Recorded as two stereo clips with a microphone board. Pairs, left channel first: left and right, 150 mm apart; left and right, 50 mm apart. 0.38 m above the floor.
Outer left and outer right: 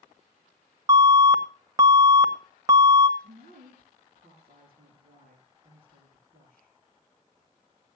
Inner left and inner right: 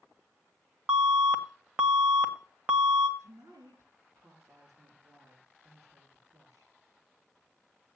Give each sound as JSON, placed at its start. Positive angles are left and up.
{"t": 0.9, "sound": "an alarm", "side_deg": -20, "distance_m": 1.4}
{"t": 3.2, "sound": "a woman speaking", "side_deg": -80, "distance_m": 5.0}